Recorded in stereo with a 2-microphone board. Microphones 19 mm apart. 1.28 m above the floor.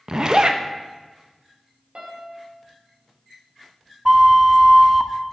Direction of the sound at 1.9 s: 50° right (ahead or behind).